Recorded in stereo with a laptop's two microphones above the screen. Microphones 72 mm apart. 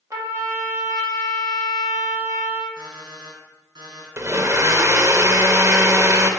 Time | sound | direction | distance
0.1 | a trumpet | 50° right (ahead or behind) | 1.7 m
2.8 | an alarm clock | 70° right (ahead or behind) | 3.5 m
4.2 | a blender | 40° right (ahead or behind) | 0.7 m